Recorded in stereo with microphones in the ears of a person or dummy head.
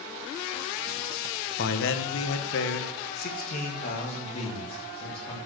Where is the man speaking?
60° left (ahead or behind), 1.2 m; by 5.4 s 30° left (ahead or behind), 3.5 m.